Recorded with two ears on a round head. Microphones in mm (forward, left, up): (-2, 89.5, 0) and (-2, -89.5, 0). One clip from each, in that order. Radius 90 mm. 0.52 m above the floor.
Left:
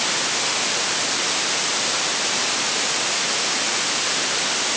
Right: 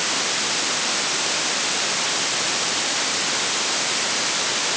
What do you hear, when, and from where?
Only background noise.